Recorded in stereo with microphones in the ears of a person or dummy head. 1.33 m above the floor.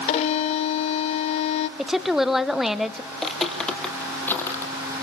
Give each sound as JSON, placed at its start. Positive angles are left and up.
{"t": 0.1, "sound": "a violin", "side_deg": 40, "distance_m": 0.8}
{"t": 1.8, "sound": "a woman speaking", "side_deg": -5, "distance_m": 1.3}
{"t": 3.1, "sound": "footsteps", "side_deg": 0, "distance_m": 2.5}